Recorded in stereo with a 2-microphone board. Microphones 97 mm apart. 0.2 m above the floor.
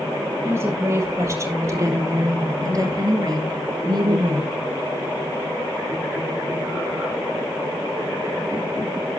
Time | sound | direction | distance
0.4 | a woman speaking | 25° right (ahead or behind) | 5.5 m